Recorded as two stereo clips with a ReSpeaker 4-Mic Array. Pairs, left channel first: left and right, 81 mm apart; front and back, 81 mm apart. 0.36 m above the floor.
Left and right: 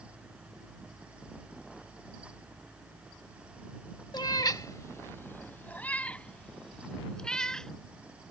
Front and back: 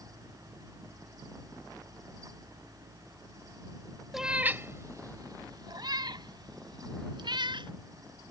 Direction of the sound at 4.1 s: 95° left.